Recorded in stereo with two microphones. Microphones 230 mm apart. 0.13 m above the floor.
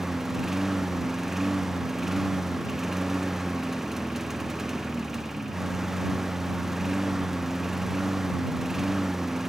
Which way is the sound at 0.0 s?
Centre (ahead or behind).